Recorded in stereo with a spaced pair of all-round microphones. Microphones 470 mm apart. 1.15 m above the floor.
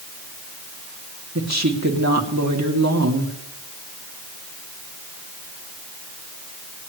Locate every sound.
1.4 s a woman speaking: 35° right (ahead or behind), 2.5 m